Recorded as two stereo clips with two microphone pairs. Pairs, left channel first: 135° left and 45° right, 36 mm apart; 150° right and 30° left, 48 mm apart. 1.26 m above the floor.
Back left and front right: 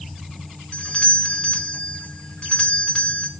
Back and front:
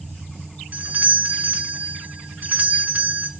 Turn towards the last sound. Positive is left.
turn(degrees=80)